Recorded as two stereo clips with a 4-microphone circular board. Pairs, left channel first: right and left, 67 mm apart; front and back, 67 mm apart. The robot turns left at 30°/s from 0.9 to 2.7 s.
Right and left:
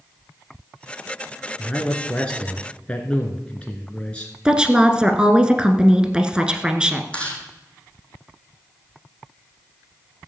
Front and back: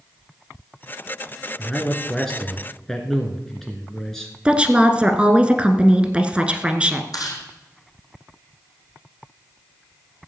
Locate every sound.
1.6 s a man speaking: 40° right, 1.6 m; by 4.3 s 75° right, 1.6 m
4.5 s a woman speaking: 140° left, 1.3 m
7.1 s chewing: 20° right, 4 m